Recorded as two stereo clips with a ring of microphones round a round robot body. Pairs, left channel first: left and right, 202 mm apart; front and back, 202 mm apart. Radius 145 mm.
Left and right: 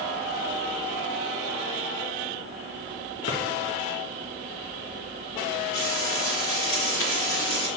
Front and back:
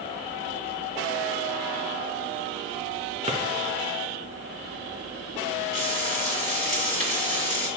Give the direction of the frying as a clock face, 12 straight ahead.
8 o'clock.